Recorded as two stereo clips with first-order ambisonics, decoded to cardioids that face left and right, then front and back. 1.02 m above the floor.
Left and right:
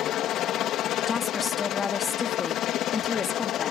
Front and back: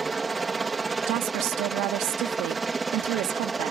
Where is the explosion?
No explosion in this recording.